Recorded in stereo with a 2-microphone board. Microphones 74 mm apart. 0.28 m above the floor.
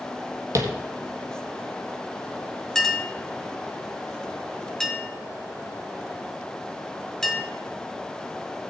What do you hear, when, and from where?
0.6 s tapping: 45° right (ahead or behind), 1.4 m
2.8 s a clink: 5° left (ahead or behind), 1.6 m